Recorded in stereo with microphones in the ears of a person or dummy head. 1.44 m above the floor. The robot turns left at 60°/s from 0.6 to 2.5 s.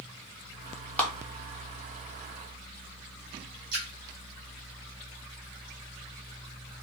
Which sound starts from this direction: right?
A splash, at 3.7 s.